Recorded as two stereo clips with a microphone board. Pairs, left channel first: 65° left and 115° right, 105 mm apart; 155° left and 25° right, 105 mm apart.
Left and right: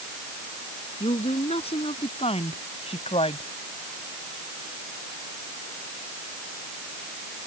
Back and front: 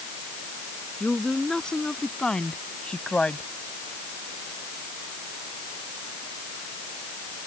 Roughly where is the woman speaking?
Left.